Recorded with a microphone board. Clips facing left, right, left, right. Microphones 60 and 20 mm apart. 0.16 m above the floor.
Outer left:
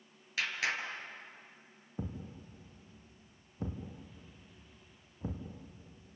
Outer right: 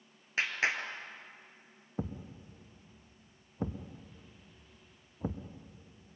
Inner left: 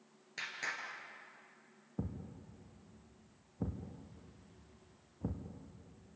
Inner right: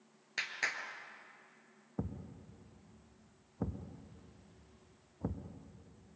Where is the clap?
30° right (ahead or behind), 2.5 m.